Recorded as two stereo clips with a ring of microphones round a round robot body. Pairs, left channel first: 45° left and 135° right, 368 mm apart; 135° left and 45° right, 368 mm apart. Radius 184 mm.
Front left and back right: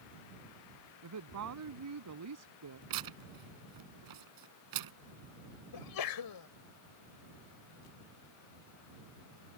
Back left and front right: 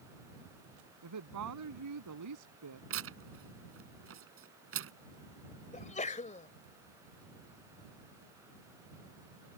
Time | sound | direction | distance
1.0 | a woman speaking | 90° right | ?
2.9 | tearing paper | 100° right | ?
5.7 | a sneeze | 65° left | ?